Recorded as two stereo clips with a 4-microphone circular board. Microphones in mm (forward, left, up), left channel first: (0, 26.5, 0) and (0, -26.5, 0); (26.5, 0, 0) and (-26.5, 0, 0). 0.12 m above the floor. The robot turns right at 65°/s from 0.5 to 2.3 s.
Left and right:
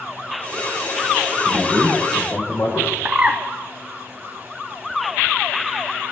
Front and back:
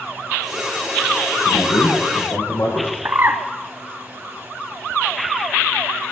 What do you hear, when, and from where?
1.4 s a man speaking: 20° right, 8.5 m; by 3.0 s 35° left, 8.5 m
3.0 s a bird: 150° right, 1.1 m